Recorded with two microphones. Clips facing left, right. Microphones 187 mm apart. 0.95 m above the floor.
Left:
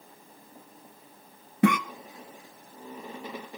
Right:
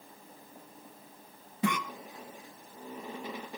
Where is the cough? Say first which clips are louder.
Left 8 dB; 65° left (ahead or behind), 1.2 m.